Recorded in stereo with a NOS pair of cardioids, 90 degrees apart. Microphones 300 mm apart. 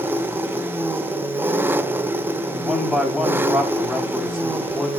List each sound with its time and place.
0.0 s an engine running: 5° right, 0.8 m
2.5 s a man speaking: straight ahead, 8 m